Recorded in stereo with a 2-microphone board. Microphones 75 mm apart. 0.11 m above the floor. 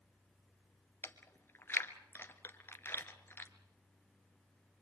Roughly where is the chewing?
Left.